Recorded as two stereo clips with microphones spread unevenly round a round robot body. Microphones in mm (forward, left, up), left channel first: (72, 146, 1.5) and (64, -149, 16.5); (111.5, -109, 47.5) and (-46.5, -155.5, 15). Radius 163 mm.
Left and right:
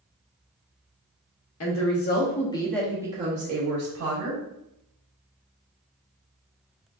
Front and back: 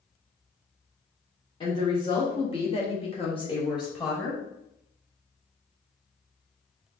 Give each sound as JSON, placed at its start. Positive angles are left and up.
{"t": 1.6, "sound": "a woman speaking", "azimuth_deg": 85, "distance_m": 0.9}